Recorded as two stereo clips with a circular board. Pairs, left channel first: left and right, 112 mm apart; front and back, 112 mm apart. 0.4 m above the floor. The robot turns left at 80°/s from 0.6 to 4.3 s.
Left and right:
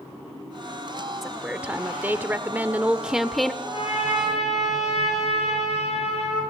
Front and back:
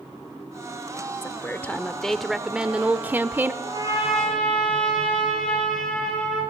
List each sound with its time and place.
1.2 s a woman speaking: 5° right, 0.7 m; by 3.5 s 170° left, 0.7 m
3.6 s a trumpet: 135° left, 9.5 m; by 6.4 s 85° left, 9.5 m